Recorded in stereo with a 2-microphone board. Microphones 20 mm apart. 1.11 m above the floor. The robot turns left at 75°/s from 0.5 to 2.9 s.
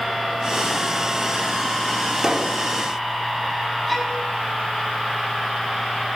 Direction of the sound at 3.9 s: 5° right (ahead or behind).